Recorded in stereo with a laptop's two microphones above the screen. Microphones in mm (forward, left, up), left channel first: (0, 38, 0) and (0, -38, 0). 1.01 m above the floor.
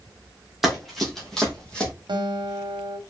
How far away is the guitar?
About 1.0 m.